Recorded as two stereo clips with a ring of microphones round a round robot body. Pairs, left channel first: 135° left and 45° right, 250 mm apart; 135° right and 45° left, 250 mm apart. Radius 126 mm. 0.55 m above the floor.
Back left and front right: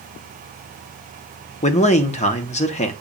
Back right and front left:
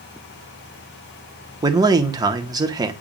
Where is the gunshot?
I don't hear a gunshot.